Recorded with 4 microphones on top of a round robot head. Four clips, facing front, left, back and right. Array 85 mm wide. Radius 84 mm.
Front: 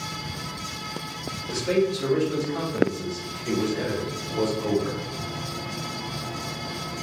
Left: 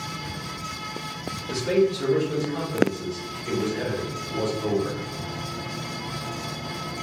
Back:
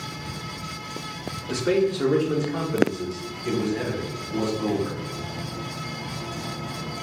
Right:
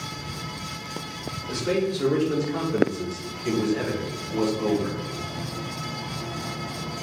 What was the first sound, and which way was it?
A man speaking, 175° left.